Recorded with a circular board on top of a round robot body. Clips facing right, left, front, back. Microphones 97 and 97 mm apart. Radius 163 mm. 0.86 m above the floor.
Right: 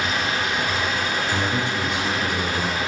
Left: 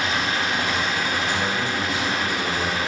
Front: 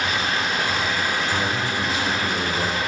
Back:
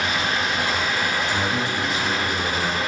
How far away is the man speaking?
About 1.4 m.